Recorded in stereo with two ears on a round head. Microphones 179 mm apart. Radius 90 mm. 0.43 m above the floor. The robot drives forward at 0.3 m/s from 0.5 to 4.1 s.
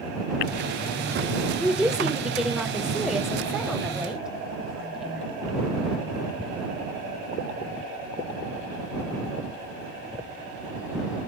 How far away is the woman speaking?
About 1.0 m.